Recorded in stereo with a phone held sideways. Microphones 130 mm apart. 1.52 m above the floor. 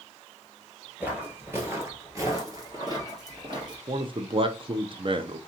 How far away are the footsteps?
About 1.5 m.